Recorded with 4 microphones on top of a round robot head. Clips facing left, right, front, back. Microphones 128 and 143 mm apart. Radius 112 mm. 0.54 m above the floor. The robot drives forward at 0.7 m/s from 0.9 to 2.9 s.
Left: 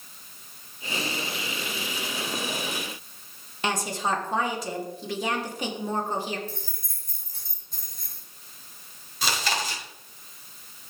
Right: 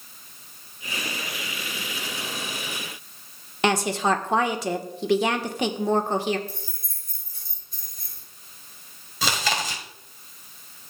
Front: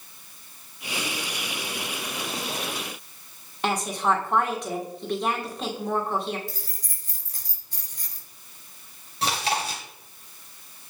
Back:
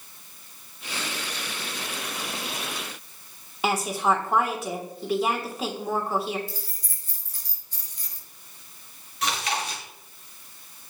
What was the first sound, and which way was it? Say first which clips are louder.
A woman speaking: right 6 dB, back 1 dB; 100° right.